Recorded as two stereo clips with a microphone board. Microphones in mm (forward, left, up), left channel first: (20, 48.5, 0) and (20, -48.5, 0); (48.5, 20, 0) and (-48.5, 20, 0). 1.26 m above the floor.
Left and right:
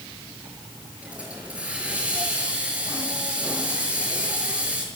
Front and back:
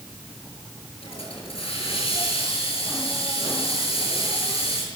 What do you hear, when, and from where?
1.0 s a hiss: 10° right, 6.5 m